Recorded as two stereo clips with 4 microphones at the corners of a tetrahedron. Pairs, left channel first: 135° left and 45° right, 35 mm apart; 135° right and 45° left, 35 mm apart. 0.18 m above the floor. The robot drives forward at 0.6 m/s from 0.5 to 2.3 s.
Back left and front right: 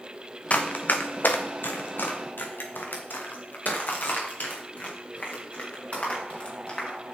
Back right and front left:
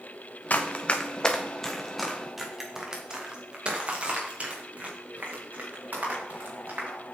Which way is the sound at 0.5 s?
Straight behind.